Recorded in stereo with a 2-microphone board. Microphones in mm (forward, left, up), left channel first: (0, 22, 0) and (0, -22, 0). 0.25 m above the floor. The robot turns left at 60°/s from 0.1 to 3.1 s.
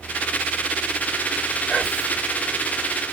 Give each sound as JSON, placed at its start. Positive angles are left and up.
{"t": 1.7, "sound": "whispering", "azimuth_deg": 15, "distance_m": 1.4}